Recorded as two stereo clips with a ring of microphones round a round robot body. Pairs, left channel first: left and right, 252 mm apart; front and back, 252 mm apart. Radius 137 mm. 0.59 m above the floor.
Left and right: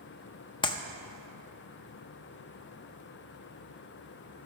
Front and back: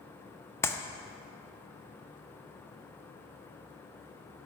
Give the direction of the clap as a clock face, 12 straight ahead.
10 o'clock.